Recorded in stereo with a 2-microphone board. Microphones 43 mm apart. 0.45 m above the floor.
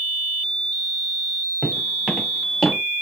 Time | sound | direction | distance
1.6 | footsteps | 5° right (ahead or behind) | 3.5 m